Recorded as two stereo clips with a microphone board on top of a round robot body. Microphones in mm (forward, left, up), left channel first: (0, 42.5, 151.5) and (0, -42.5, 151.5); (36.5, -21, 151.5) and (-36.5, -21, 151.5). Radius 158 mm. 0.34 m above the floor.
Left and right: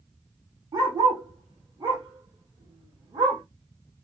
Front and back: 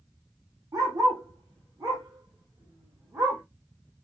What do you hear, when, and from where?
0.7 s a dog barking: 135° right, 7 m; by 3.4 s 125° right, 7.5 m